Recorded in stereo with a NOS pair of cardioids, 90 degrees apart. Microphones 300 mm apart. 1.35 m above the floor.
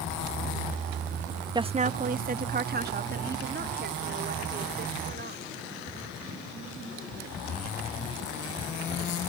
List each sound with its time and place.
1.6 s a woman speaking: 15° right; by 5.5 s 35° right